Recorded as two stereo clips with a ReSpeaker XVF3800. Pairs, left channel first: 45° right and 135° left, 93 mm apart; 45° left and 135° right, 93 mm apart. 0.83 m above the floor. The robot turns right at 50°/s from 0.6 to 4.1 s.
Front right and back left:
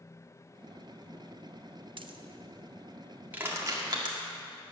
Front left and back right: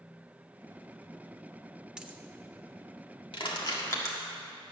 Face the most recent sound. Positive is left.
turn(degrees=105)